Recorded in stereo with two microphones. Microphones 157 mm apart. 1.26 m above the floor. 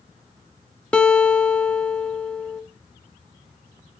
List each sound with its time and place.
0.9 s a guitar: 5° left (ahead or behind), 0.8 m